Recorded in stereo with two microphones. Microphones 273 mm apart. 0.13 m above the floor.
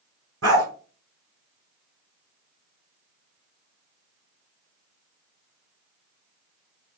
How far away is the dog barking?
About 1.1 m.